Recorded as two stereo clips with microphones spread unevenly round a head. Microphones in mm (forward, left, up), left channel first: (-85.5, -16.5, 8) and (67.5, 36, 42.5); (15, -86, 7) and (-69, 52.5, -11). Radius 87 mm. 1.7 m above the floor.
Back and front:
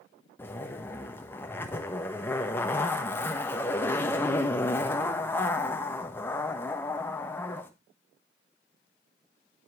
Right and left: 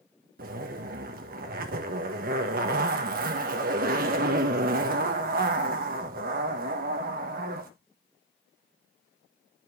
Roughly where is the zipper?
Behind left.